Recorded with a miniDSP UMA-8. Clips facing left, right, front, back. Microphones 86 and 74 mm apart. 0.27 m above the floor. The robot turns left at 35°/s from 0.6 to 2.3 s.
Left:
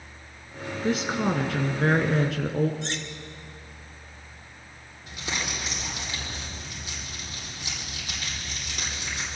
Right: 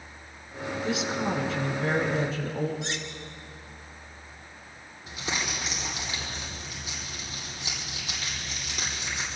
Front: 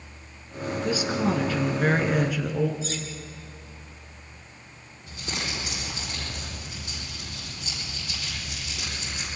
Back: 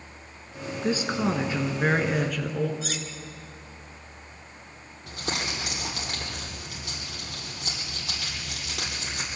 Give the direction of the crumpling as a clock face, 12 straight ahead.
6 o'clock.